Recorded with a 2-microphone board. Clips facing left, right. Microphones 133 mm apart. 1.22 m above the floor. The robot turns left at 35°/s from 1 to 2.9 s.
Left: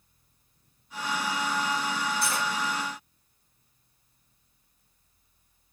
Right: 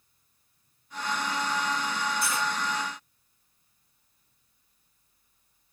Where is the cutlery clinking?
35° left (ahead or behind), 1.7 m; by 2.5 s 30° left (ahead or behind), 1.7 m.